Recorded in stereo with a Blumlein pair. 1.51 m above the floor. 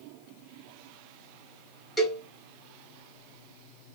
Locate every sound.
2.0 s a cowbell: 5° left, 1.2 m